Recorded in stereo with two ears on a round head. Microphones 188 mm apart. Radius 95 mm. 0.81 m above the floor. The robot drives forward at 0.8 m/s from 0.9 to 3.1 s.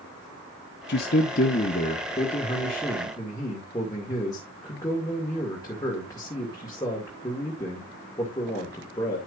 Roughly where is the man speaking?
Left.